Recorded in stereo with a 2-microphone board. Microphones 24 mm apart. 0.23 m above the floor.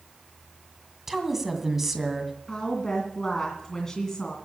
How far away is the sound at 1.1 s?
About 2 m.